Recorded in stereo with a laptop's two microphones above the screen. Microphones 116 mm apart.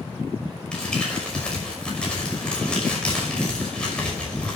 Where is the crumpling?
10° left (ahead or behind), 5.5 m.